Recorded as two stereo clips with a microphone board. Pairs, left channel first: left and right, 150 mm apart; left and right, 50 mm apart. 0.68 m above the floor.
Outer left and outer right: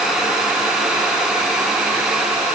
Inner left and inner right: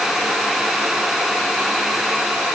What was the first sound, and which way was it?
Only background noise.